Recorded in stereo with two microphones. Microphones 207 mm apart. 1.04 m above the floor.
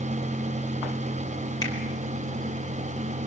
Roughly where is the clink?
No clink in this recording.